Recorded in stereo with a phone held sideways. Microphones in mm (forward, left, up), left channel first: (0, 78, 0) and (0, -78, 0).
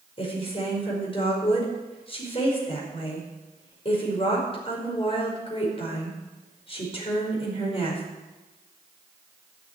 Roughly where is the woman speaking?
Left.